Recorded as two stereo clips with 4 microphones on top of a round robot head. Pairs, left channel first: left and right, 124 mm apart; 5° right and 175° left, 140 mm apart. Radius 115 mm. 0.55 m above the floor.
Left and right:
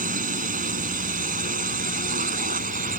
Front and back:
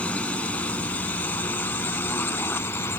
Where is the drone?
90° right; by 3.0 s 85° right.